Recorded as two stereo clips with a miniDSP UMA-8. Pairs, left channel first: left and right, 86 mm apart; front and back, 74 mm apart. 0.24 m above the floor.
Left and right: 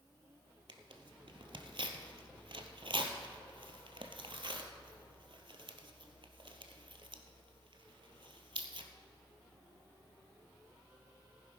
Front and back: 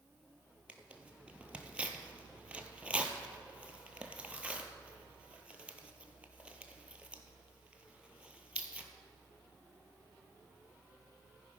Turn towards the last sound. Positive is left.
turn(degrees=-105)